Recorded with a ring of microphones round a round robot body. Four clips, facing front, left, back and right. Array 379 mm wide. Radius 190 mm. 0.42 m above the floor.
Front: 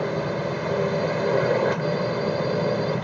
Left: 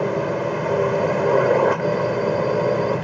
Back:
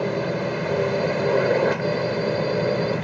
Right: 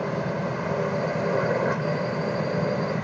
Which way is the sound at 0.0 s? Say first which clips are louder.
Left 6 dB, back 1 dB; 105° left.